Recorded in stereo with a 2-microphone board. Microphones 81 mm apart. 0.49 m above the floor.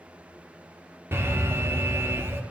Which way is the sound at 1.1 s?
30° right (ahead or behind).